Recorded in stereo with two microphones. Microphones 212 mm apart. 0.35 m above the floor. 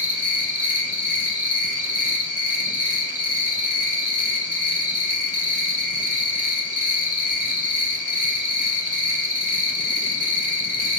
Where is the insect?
35° right (ahead or behind), 0.8 m.